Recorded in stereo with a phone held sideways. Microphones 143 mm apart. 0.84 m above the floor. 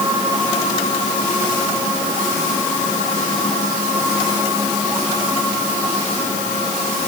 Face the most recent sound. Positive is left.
No sound to turn to.